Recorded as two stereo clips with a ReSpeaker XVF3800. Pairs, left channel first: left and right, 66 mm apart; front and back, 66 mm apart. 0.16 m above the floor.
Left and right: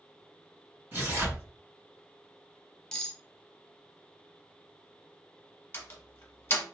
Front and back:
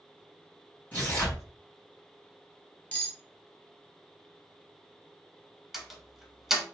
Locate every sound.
0.9 s tearing paper: 50° right, 1.9 m
2.9 s cutlery clinking: 30° left, 0.8 m
5.7 s a door slam: 95° left, 0.9 m